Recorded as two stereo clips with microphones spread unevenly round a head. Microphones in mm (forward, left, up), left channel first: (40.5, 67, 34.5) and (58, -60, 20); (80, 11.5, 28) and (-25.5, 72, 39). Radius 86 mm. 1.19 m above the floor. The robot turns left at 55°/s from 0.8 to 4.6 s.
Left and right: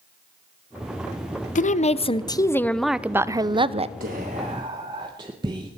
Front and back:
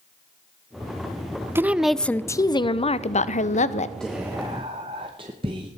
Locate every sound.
1.6 s a woman speaking: 75° left, 0.5 m; by 3.9 s 50° right, 0.5 m
4.0 s whispering: 115° right, 0.7 m; by 5.7 s 150° right, 0.7 m